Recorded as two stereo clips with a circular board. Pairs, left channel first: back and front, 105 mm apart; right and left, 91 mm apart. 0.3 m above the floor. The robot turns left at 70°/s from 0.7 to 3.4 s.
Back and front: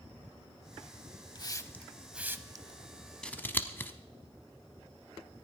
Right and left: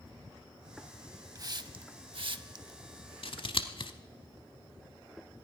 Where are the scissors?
100° right, 0.8 m; by 3.9 s 110° right, 0.8 m.